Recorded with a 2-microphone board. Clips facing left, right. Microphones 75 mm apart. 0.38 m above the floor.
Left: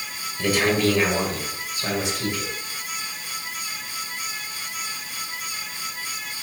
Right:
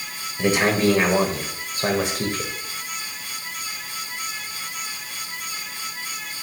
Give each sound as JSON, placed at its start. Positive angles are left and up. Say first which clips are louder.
{"t": 0.4, "sound": "a man speaking", "louder": "right 2 dB", "side_deg": -20, "distance_m": 1.4}